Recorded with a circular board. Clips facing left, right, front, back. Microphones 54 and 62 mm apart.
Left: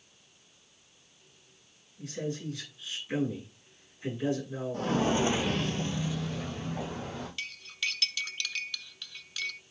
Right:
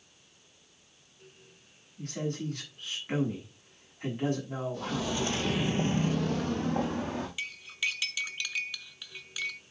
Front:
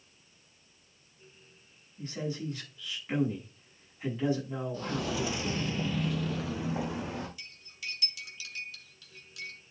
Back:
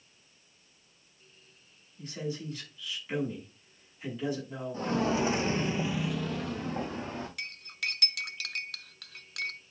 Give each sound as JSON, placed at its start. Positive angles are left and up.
{"t": 2.0, "sound": "a man speaking", "azimuth_deg": -65, "distance_m": 6.5}
{"t": 4.7, "sound": "footsteps", "azimuth_deg": 125, "distance_m": 1.4}
{"t": 7.4, "sound": "cutlery clinking", "azimuth_deg": -165, "distance_m": 0.6}